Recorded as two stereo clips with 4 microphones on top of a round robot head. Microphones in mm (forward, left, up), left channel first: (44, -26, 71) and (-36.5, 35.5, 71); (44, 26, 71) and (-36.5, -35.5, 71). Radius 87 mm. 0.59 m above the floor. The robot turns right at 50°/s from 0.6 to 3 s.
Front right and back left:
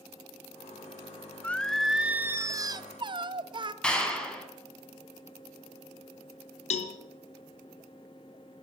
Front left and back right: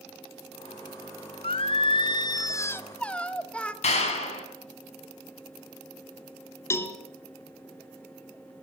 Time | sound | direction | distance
1.4 | singing | 35° left | 1.4 m
3.8 | a clap | 45° left | 5 m
6.7 | a cowbell | 30° right | 1.9 m